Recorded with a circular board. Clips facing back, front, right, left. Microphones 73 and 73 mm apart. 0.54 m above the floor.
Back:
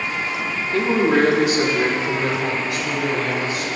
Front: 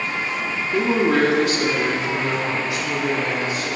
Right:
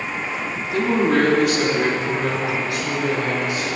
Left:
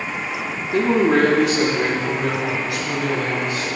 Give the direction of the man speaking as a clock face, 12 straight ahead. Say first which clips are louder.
Back 1 dB, left 2 dB; 10 o'clock.